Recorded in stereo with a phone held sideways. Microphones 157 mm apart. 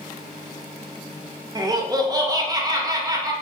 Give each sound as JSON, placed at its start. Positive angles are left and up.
{"t": 1.6, "sound": "laughter", "side_deg": -25, "distance_m": 0.5}